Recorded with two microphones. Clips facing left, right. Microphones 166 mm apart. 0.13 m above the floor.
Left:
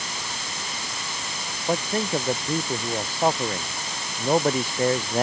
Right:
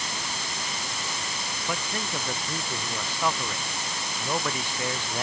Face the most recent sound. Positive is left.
turn(degrees=45)  # may be behind; listen again after turning